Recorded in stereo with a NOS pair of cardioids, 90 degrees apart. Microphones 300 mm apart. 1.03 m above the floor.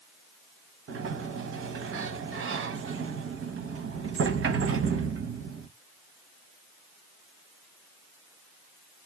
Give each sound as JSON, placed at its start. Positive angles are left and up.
{"t": 0.9, "sound": "a sliding door", "azimuth_deg": -45, "distance_m": 0.8}